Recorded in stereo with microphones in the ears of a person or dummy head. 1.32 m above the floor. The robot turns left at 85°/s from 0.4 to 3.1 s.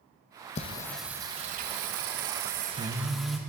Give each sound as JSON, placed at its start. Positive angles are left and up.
{"t": 0.6, "sound": "singing", "azimuth_deg": 35, "distance_m": 0.9}